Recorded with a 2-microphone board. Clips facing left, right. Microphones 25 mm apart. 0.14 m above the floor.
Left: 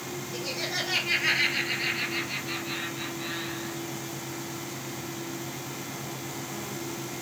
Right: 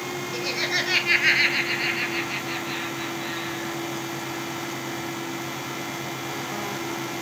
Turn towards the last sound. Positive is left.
turn(degrees=0)  # may be behind; listen again after turning